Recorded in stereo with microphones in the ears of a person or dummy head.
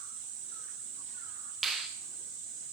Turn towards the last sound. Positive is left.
turn(degrees=0)  # may be behind; listen again after turning